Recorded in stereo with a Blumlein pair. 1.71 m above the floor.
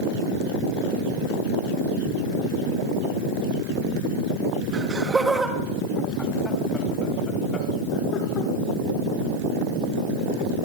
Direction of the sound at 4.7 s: 20° right.